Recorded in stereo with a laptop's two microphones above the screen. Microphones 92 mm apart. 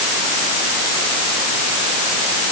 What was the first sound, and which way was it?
Only background noise.